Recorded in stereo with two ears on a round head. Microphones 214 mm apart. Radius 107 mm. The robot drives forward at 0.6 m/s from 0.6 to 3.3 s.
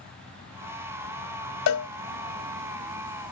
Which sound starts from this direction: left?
A cowbell, at 1.7 s.